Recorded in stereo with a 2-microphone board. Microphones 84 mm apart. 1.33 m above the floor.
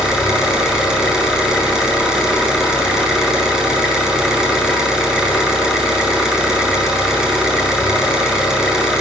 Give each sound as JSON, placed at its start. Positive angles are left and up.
{"t": 0.0, "sound": "an engine running", "side_deg": -10, "distance_m": 7.0}